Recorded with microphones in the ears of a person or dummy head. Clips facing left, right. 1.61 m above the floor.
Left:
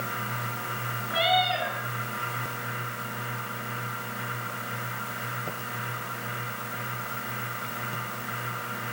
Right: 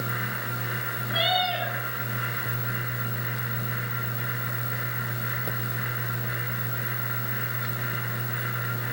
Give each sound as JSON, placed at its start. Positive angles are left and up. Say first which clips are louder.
{"t": 1.1, "sound": "a cat meowing", "louder": "left 2 dB", "side_deg": -10, "distance_m": 10.0}